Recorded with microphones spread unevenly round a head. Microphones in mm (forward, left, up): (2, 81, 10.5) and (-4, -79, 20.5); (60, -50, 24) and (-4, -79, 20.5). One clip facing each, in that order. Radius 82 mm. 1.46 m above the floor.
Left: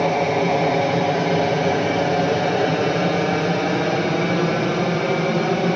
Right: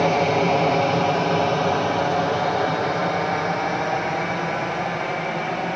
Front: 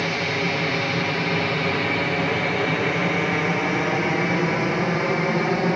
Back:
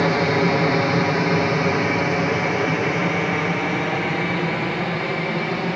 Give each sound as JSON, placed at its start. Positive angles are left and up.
{"t": 0.0, "sound": "an aircraft", "azimuth_deg": 170}